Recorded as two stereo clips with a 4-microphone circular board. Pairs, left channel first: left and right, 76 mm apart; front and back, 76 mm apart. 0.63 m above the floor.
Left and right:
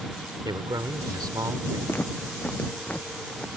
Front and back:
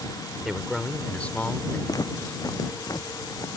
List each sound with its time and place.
0.5 s a man speaking: 95° right; by 1.8 s 55° right
1.9 s footsteps: 30° left; by 3.5 s 20° left